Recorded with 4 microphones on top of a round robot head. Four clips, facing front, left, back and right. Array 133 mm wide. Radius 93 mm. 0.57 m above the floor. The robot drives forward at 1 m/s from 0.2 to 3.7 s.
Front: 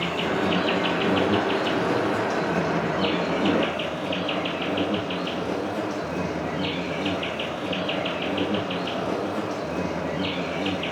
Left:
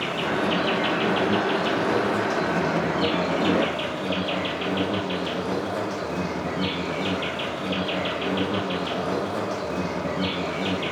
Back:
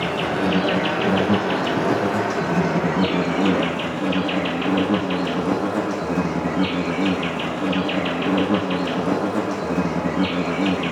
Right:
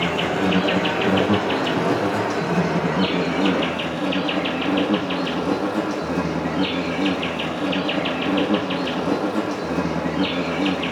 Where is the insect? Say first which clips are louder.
Right 4 dB, back 3 dB; 135° right, 4.5 m; by 10.9 s 155° right, 7.5 m.